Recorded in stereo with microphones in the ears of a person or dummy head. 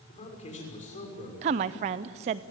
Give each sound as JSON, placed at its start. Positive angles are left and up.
{"t": 0.1, "sound": "a man speaking", "side_deg": 35, "distance_m": 6.0}
{"t": 1.4, "sound": "a woman speaking", "side_deg": -25, "distance_m": 0.6}